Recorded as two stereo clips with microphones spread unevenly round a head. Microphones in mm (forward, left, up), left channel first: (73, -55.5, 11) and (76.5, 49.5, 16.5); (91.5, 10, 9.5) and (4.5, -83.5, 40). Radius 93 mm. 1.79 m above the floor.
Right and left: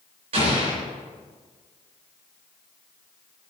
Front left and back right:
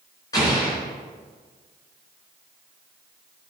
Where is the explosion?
125° left, 3.5 m.